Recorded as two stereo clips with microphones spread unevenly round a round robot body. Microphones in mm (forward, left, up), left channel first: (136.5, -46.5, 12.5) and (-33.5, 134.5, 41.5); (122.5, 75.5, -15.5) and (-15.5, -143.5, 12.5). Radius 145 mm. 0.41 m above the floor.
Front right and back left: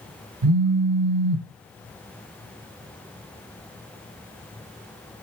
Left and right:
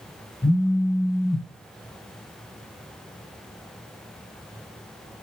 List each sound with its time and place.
0.4 s a phone buzzing: 140° left, 0.6 m